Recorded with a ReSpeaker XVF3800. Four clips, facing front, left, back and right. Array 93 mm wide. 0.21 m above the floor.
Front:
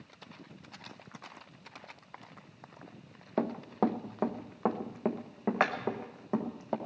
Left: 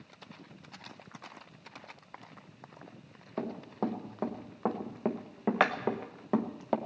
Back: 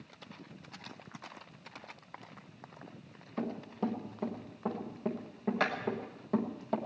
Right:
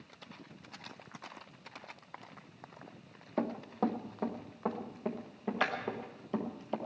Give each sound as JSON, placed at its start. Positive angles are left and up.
{"t": 3.4, "sound": "running footsteps", "azimuth_deg": -10, "distance_m": 1.5}